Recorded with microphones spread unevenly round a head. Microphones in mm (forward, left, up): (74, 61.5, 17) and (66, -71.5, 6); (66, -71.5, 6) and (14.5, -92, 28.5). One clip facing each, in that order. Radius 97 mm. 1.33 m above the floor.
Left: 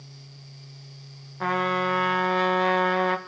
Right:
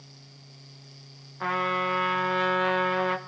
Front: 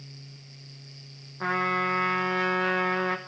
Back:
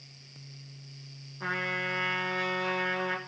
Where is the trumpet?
40° left, 1.7 m.